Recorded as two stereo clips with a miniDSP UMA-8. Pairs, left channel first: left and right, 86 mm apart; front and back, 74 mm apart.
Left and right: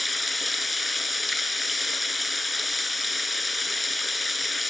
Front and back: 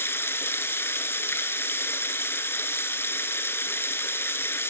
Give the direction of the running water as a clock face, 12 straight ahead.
12 o'clock.